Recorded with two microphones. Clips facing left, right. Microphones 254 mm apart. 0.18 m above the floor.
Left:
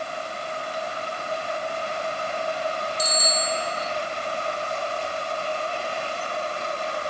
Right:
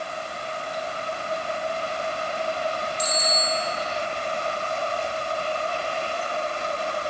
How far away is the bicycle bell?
About 3.5 m.